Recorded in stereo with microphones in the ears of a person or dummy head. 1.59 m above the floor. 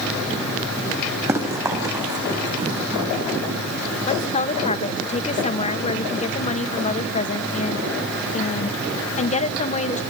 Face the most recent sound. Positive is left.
turn(degrees=40)  # may be behind; listen again after turning